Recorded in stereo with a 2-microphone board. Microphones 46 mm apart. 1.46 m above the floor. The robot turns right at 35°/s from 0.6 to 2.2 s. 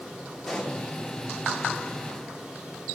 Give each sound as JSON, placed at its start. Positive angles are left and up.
{"t": 0.5, "sound": "a pop", "side_deg": 5, "distance_m": 1.2}